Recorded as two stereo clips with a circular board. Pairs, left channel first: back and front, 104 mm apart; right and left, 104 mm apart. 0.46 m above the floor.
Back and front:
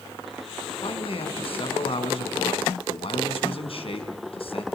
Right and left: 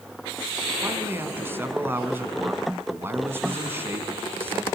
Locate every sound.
0.8 s a man speaking: 160° left, 4.5 m